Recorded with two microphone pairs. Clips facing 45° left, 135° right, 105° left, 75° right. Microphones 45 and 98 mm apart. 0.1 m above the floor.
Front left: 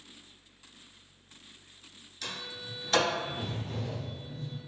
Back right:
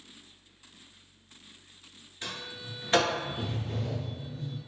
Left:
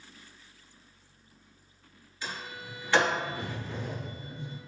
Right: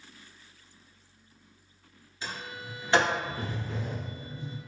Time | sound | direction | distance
2.2 | a sliding door | 115° right | 1.0 m